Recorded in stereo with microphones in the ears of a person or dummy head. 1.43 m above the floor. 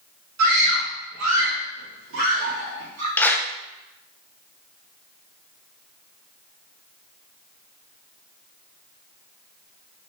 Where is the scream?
80° right, 2.5 m; by 3.1 s 85° right, 3.5 m.